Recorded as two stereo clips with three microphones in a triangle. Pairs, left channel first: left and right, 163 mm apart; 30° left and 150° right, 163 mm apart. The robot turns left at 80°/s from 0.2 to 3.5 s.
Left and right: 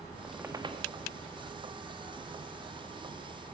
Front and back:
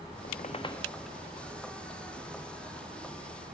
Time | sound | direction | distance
0.2 | a squeak | straight ahead | 0.6 m